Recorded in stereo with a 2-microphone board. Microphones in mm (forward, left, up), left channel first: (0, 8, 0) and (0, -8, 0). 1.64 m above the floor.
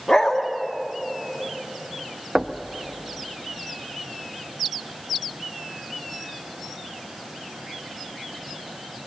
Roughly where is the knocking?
Right.